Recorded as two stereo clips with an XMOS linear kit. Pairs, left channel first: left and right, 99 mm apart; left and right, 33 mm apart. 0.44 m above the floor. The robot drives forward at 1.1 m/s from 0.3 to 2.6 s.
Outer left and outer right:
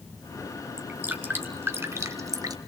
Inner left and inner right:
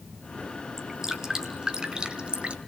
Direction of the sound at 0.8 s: 15° right (ahead or behind).